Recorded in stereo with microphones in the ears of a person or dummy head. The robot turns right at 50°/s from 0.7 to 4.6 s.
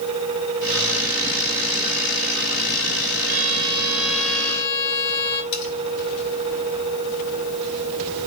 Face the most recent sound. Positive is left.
turn(degrees=65)  # may be behind; listen again after turning